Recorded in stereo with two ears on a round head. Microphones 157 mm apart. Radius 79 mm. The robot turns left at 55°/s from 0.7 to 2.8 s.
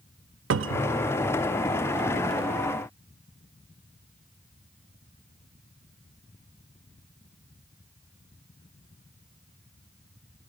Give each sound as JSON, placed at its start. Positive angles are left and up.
{"t": 0.5, "sound": "a cupboard door", "side_deg": -80, "distance_m": 0.5}